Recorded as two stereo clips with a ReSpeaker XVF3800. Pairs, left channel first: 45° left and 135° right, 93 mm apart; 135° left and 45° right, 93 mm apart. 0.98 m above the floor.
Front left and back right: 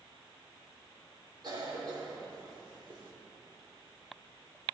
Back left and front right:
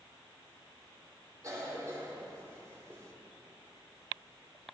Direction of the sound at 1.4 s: 100° right.